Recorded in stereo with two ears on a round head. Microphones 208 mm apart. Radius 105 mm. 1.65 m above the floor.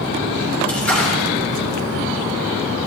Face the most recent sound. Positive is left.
turn(degrees=5)  # may be behind; listen again after turning